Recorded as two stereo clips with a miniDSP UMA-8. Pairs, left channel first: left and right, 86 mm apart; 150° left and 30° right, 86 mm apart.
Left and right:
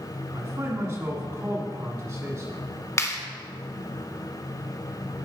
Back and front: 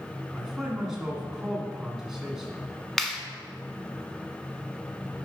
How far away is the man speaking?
About 1.7 m.